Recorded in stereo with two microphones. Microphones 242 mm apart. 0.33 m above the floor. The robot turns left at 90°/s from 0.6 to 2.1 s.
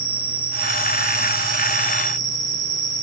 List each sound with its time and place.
0.0 s an insect: 135° left, 1.5 m; by 3.0 s straight ahead, 1.5 m